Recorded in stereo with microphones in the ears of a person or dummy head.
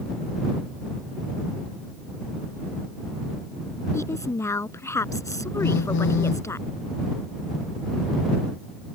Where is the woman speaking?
10° left (ahead or behind).